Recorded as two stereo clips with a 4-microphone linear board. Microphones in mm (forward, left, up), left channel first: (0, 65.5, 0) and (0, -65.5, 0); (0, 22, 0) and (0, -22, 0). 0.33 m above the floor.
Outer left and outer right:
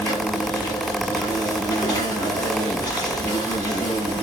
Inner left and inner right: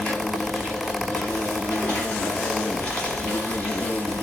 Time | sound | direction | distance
0.0 | an insect | 30° left (ahead or behind) | 3 m